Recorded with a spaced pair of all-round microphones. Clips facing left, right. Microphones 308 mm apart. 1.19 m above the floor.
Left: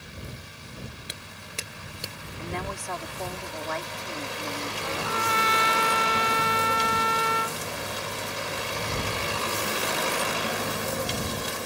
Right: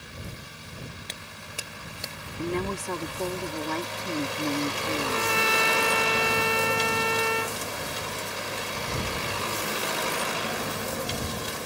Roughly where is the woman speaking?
Right.